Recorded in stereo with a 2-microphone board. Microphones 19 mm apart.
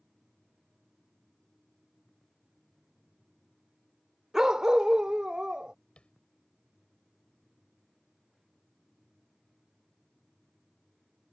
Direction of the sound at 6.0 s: 75° left (ahead or behind).